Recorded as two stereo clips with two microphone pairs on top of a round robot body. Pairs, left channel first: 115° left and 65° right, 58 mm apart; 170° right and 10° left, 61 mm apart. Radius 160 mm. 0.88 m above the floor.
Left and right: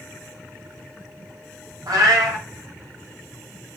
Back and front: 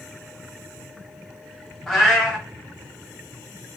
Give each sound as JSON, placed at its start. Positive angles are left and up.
{"t": 1.9, "sound": "a cat meowing", "azimuth_deg": -85, "distance_m": 0.7}